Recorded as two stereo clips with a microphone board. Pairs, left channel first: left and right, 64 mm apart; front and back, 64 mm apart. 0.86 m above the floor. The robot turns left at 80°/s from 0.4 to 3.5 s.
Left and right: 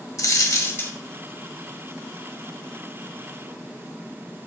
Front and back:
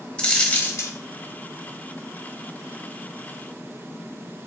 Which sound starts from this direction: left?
A dropped coin, at 0.2 s.